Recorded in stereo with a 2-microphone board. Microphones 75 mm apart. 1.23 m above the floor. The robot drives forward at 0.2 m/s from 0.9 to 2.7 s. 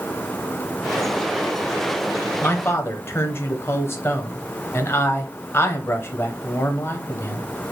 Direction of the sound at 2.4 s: 30° left (ahead or behind).